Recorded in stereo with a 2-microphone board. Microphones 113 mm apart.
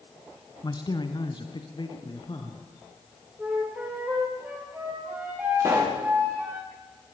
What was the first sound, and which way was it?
A man speaking, 35° left (ahead or behind).